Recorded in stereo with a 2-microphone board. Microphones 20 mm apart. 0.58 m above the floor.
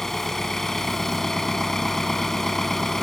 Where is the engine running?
20° left (ahead or behind).